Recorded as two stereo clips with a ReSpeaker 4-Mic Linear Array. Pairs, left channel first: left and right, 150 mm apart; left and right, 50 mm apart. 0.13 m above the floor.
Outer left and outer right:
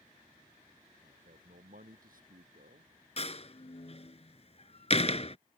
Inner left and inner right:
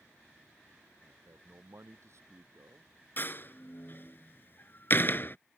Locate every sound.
1.0 s a man speaking: 70° right (ahead or behind)
3.2 s a door slam: 45° left (ahead or behind)